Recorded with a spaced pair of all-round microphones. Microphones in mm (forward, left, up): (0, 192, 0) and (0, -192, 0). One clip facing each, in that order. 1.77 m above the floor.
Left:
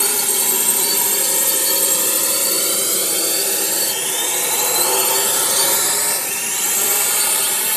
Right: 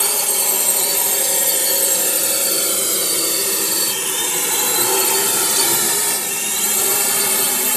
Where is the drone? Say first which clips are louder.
Left 1 dB; 35° left (ahead or behind); by 7.8 s 60° right (ahead or behind).